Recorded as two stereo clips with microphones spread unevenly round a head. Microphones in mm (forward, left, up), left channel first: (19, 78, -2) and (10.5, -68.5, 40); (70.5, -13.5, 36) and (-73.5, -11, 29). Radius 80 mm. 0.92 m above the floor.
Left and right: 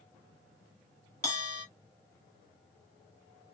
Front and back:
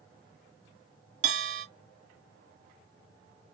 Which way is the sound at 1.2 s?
150° left.